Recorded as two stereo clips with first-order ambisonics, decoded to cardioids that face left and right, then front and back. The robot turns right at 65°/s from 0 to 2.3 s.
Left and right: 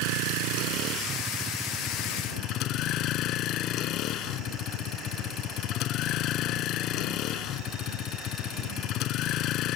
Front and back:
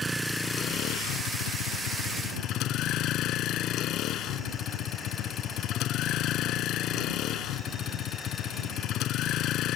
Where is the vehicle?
105° right; by 9.8 s 45° left.